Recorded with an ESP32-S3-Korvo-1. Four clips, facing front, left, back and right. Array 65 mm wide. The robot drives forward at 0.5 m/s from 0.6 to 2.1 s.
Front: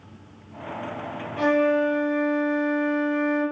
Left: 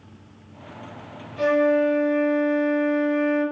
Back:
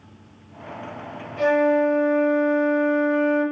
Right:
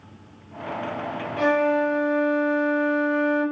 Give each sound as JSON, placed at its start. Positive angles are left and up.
{"t": 1.4, "sound": "a flute", "azimuth_deg": -70, "distance_m": 0.9}